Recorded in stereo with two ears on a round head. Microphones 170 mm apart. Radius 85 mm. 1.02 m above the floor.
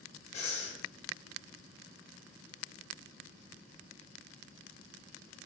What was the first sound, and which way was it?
Breathing, 35° left (ahead or behind).